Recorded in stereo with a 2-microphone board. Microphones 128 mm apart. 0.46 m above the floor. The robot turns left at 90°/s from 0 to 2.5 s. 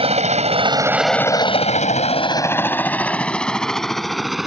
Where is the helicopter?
45° right (ahead or behind); by 4.5 s centre (ahead or behind).